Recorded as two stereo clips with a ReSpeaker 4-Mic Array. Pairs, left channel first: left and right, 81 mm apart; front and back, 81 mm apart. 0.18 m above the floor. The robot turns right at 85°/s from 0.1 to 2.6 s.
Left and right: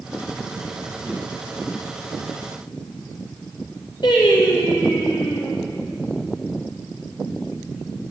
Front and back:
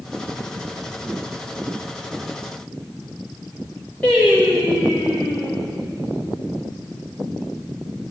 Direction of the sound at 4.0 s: 75° left.